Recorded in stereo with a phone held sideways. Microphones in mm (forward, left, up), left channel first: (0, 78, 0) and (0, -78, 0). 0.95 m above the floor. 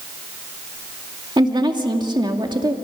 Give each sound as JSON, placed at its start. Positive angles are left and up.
{"t": 1.4, "sound": "a woman speaking", "side_deg": -30, "distance_m": 2.0}